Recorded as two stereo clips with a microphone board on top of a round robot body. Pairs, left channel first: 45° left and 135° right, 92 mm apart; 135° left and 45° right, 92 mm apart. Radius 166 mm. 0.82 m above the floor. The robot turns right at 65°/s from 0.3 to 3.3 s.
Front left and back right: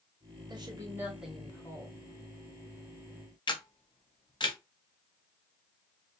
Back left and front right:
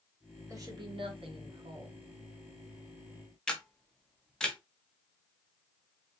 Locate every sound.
0.5 s a woman speaking: 100° right, 2 m; by 2.1 s straight ahead, 2 m
3.5 s a camera shutter: 60° left, 1.2 m